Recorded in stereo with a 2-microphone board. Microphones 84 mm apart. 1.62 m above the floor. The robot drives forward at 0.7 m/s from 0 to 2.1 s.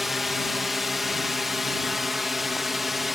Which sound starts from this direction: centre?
A drone, at 0.0 s.